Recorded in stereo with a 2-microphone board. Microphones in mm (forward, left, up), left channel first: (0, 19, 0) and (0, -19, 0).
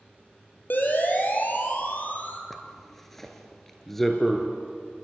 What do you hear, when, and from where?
0.7 s a siren: 55° left (ahead or behind), 5 m; by 2.4 s 45° left (ahead or behind), 5 m
2.5 s a zipper: 5° left (ahead or behind), 2.5 m